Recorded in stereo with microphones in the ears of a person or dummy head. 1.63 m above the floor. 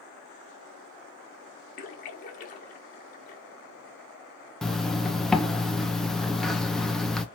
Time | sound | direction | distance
1.8 | a splash | 45° left (ahead or behind) | 1.9 m
4.6 | a zipper | centre (ahead or behind) | 0.9 m